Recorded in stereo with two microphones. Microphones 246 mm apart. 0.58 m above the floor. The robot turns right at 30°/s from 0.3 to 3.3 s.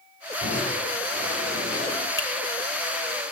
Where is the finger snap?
55° left (ahead or behind), 3 m; by 2.3 s 50° left (ahead or behind), 3 m.